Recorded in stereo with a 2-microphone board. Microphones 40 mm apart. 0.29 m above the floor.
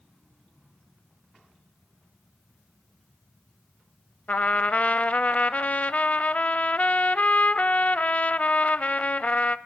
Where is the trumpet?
40° left (ahead or behind), 0.6 m.